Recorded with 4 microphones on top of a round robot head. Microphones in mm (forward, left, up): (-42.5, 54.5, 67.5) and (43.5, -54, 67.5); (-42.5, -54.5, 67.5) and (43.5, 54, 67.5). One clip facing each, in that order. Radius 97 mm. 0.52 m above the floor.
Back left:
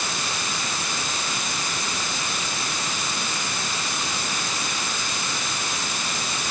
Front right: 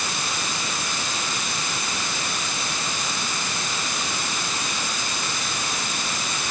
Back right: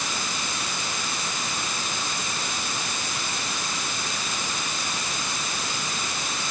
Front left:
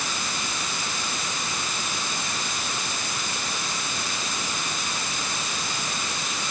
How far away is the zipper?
No zipper in this recording.